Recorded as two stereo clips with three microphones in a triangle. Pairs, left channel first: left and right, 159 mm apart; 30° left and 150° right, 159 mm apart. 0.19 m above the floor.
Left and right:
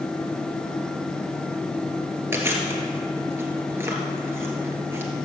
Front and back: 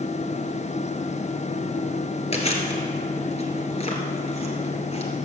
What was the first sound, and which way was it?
Chewing, 15° right.